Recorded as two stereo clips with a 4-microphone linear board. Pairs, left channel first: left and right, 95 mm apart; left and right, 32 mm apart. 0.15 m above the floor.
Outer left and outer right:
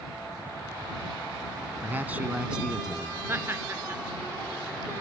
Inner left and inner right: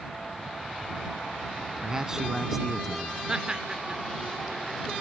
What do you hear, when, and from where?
1.8 s a man speaking: 20° right (ahead or behind); by 3.2 s centre (ahead or behind)
3.3 s laughter: 25° right (ahead or behind)